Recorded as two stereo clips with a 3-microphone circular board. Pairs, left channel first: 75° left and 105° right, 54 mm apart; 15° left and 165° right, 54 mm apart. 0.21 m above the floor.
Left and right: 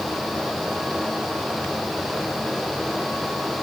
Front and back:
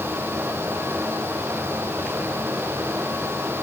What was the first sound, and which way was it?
Only background noise.